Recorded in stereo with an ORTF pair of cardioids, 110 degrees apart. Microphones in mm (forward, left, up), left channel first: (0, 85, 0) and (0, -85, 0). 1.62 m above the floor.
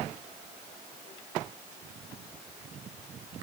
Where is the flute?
No flute in this recording.